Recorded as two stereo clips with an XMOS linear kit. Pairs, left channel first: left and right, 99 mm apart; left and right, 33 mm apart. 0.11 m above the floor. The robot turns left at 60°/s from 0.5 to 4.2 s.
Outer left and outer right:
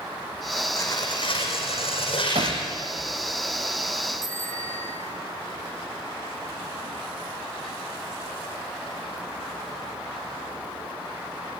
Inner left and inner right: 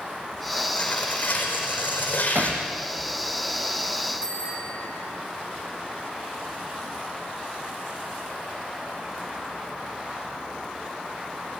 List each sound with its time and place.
0.8 s tearing paper: 155° left, 5 m; by 2.6 s 45° left, 5 m
2.4 s hammering: 75° right (ahead or behind), 3 m; by 2.6 s 65° right (ahead or behind), 3 m
4.2 s a bicycle bell: 30° left (ahead or behind), 6 m